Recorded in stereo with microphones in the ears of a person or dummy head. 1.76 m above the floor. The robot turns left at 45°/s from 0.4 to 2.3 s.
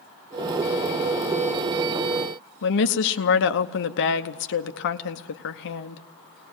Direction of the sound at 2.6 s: 60° left (ahead or behind).